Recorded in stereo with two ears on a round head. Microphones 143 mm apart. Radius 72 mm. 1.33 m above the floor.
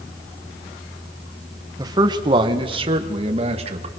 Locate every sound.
1.8 s a man speaking: 20° right (ahead or behind), 1.2 m; by 3.9 s 40° right (ahead or behind), 2 m